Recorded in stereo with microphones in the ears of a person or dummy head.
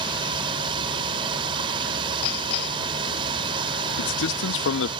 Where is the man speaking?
75° left (ahead or behind).